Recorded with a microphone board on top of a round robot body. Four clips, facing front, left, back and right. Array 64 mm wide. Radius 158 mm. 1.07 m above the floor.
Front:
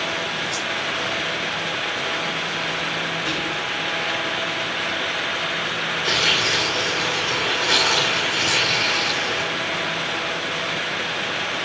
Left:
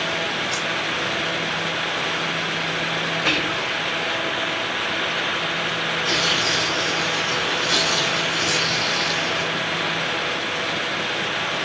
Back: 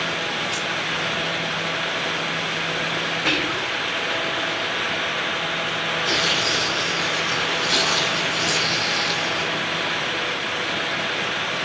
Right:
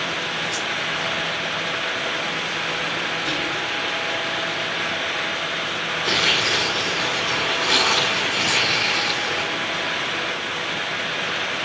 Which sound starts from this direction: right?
Tearing paper, at 6.0 s.